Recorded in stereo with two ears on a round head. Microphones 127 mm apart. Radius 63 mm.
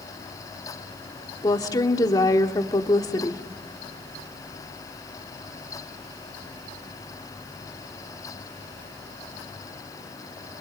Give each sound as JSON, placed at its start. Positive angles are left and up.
{"t": 1.4, "sound": "a woman speaking", "side_deg": 25, "distance_m": 1.6}